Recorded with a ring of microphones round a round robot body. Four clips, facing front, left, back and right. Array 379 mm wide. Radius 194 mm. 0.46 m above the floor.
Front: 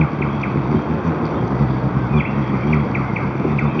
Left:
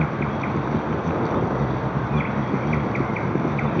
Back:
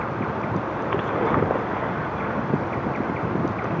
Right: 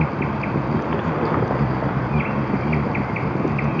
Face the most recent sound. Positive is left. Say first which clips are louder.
# right 1 dB, front 6 dB
turn(degrees=-5)